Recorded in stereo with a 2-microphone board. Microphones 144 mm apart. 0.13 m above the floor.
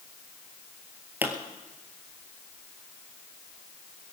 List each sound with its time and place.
1.2 s a pop: 10° right (ahead or behind), 1.8 m